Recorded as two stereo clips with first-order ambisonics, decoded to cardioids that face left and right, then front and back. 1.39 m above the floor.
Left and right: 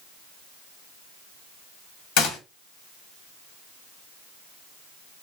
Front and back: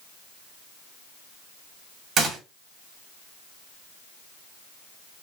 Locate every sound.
2.2 s a gunshot: 120° left, 1.9 m